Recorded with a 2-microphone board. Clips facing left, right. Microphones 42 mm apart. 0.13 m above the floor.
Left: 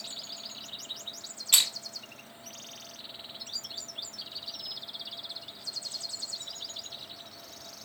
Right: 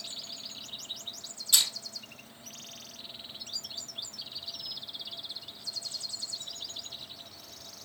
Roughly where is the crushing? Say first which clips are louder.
Left 1 dB; left.